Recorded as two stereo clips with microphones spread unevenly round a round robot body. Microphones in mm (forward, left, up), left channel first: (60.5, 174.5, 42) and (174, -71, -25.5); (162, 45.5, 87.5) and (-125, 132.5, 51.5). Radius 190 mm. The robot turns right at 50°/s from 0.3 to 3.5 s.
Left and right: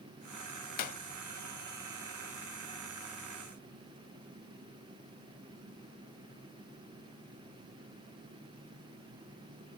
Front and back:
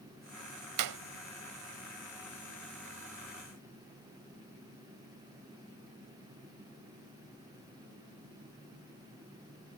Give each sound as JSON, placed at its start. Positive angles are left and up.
{"t": 0.8, "sound": "a clap", "azimuth_deg": 160}